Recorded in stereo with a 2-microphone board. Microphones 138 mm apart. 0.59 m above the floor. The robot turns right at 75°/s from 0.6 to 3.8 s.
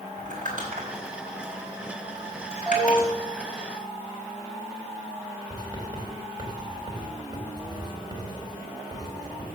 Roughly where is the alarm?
Ahead.